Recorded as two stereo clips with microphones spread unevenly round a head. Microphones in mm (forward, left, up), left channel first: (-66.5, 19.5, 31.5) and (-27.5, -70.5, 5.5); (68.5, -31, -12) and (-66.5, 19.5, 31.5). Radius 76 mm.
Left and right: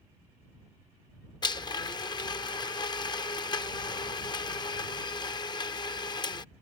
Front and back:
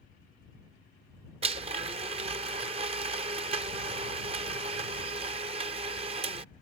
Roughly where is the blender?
Behind left.